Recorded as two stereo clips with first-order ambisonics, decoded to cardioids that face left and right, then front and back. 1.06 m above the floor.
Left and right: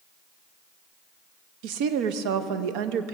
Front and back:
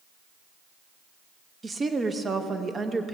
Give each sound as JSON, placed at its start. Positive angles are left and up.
{"t": 1.6, "sound": "a woman speaking", "azimuth_deg": -105, "distance_m": 0.7}